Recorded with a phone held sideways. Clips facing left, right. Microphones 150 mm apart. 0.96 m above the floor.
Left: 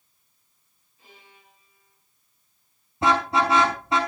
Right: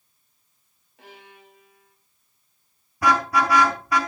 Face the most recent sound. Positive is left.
turn(degrees=25)  # may be behind; listen again after turning